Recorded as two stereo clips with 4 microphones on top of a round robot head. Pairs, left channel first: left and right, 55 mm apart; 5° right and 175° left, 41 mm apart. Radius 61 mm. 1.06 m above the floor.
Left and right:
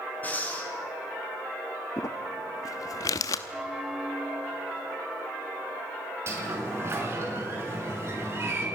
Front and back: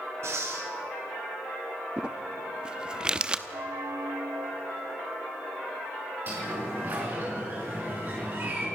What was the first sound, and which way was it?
Breathing, 155° left.